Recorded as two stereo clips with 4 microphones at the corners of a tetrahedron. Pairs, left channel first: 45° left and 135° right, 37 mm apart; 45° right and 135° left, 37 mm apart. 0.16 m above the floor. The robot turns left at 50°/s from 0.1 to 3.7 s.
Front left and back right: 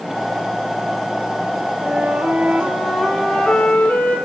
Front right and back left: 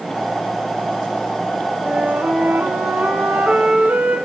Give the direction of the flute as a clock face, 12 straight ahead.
6 o'clock.